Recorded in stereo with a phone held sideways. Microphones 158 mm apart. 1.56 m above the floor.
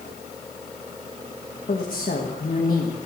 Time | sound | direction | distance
1.7 | a woman speaking | 65° left (ahead or behind) | 1.4 m